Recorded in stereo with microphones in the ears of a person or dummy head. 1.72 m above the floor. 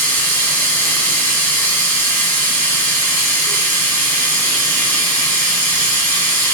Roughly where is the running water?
Centre.